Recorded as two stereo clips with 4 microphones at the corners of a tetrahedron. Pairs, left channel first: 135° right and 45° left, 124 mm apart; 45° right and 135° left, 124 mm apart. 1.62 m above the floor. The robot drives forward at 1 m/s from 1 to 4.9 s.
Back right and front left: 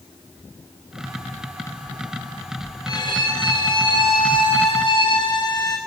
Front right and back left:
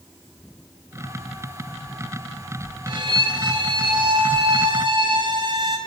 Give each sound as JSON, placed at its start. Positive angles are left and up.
{"t": 2.9, "sound": "a violin", "azimuth_deg": 180, "distance_m": 3.0}